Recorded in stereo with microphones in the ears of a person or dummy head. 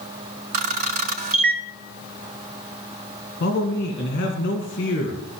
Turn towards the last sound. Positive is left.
turn(degrees=45)  # may be behind; listen again after turning